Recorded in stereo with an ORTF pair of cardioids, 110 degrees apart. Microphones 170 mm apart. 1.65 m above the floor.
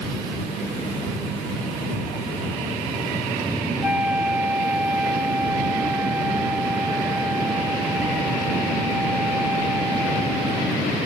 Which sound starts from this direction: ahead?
A flute, at 3.8 s.